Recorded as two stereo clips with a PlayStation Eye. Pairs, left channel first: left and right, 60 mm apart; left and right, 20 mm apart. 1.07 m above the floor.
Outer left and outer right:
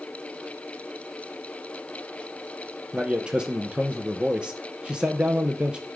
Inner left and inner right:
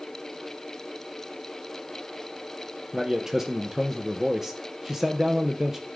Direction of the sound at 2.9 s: 15° right (ahead or behind).